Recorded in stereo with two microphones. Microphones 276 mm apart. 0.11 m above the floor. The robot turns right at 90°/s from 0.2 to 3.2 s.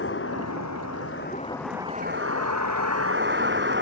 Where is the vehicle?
45° left; by 3.8 s 45° right.